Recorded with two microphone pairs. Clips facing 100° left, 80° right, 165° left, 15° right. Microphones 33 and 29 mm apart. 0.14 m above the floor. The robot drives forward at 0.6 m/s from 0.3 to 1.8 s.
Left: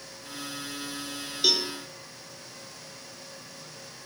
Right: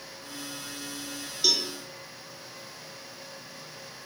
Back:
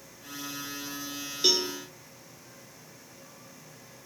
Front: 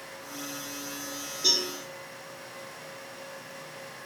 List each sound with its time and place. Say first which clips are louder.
1.4 s a cowbell: left 1 dB, back 1 dB; 165° left, 0.5 m